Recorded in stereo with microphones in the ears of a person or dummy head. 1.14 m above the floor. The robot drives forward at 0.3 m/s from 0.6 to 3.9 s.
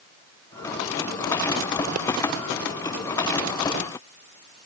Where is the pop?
50° right (ahead or behind).